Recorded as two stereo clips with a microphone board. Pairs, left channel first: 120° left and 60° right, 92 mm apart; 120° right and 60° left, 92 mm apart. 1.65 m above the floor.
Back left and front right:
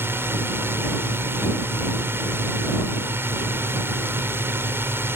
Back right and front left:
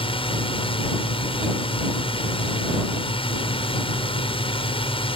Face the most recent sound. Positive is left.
turn(degrees=-125)